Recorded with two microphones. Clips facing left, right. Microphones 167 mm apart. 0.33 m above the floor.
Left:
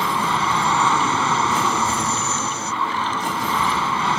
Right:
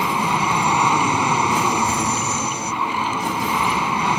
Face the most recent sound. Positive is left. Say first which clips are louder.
# right 1 dB
turn(degrees=-15)  # may be behind; listen again after turning